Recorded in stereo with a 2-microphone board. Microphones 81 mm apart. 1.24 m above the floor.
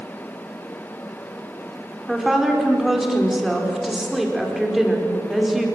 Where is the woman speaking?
5° right (ahead or behind), 4.5 m.